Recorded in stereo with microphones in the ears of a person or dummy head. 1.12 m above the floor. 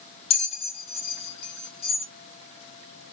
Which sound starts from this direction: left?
A bell, at 0.3 s.